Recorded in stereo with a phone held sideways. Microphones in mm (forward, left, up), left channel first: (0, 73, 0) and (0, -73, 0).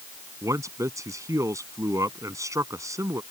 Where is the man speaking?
20° right (ahead or behind).